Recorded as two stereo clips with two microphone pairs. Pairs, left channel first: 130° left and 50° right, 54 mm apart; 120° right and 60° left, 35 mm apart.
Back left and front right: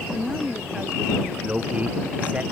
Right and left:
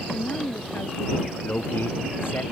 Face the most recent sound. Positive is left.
turn(degrees=-115)